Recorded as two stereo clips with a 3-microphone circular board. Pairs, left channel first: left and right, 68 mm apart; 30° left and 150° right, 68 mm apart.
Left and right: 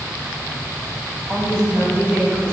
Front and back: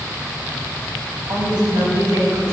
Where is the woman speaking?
140° right, 4 m; by 2.5 s 155° right, 4.5 m.